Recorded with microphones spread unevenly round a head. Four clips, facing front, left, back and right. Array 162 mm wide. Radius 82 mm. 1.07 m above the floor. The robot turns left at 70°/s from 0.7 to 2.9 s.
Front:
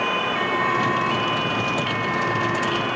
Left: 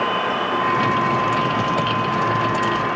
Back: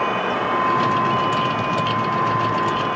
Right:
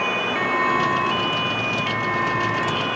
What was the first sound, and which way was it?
Only background noise.